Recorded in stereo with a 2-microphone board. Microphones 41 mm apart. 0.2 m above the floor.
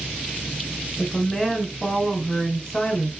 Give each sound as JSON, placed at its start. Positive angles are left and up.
{"t": 1.0, "sound": "a woman speaking", "side_deg": 15, "distance_m": 1.1}